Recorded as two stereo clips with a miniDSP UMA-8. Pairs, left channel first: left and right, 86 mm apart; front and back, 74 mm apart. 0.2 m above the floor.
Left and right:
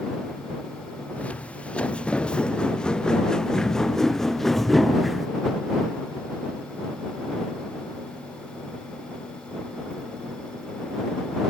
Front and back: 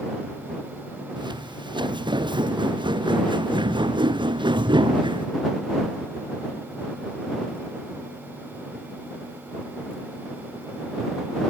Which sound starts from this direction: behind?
Footsteps, at 1.2 s.